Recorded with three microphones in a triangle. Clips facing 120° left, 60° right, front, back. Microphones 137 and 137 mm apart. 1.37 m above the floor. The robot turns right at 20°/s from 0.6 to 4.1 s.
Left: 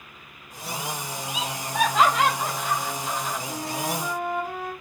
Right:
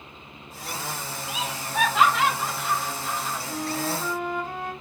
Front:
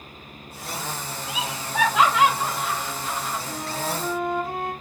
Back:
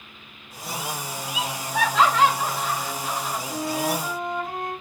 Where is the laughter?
60° left, 2 m; by 3.4 s 105° left, 2 m.